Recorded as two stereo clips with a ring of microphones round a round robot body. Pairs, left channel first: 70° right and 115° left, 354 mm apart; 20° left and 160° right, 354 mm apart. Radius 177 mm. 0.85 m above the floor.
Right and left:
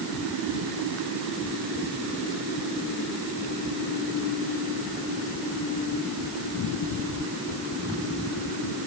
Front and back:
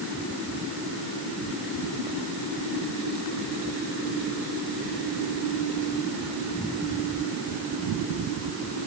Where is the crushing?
No crushing in this recording.